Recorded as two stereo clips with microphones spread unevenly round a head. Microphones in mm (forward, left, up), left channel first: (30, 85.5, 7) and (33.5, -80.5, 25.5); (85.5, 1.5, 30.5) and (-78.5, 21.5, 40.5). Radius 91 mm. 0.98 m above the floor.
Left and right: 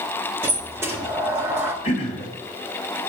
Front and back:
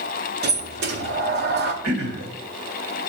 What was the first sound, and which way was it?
A sliding door, 165° right.